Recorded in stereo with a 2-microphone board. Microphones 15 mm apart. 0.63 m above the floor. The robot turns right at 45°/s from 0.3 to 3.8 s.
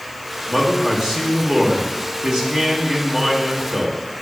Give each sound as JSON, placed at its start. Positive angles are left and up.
{"t": 0.5, "sound": "a man speaking", "azimuth_deg": -130, "distance_m": 2.0}